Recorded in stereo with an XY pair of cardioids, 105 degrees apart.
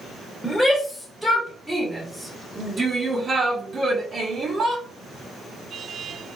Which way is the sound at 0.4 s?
10° left.